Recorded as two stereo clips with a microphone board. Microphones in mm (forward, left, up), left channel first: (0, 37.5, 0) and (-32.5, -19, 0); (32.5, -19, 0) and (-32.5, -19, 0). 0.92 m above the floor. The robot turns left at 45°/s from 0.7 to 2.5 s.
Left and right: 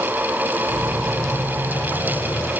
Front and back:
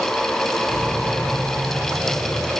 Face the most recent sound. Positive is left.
No sound to turn to.